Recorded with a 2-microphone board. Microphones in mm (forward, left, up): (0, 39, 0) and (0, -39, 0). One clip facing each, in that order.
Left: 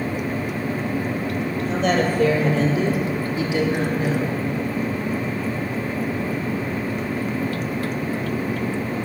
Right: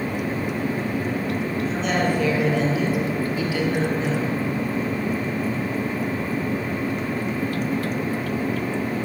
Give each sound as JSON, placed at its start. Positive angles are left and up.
{"t": 1.6, "sound": "a woman speaking", "side_deg": 50, "distance_m": 5.0}